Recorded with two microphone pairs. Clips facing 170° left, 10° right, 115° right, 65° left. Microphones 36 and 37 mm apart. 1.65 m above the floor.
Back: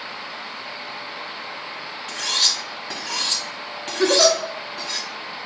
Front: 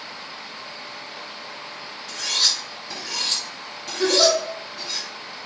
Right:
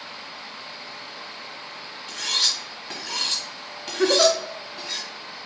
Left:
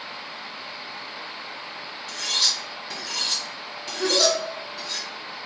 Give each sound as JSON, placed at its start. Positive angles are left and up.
{"t": 2.1, "sound": "cutlery clinking", "azimuth_deg": -155, "distance_m": 1.5}
{"t": 4.0, "sound": "a giggle", "azimuth_deg": -125, "distance_m": 0.6}